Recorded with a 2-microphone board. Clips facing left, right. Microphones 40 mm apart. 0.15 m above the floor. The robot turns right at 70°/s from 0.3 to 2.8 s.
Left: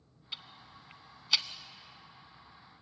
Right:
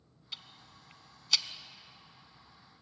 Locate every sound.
0.3 s ticking: 15° left (ahead or behind), 0.9 m